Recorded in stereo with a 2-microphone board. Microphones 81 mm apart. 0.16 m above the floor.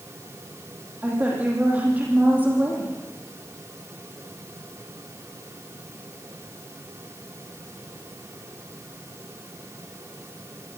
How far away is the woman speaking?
About 8 m.